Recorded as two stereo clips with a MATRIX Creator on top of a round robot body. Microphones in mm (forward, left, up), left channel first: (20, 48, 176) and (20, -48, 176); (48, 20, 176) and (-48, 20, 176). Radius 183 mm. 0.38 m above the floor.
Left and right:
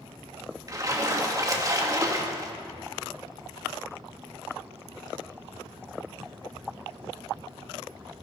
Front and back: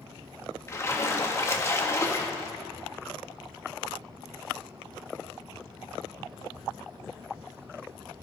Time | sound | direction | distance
0.7 | a splash | 50° right | 1.9 m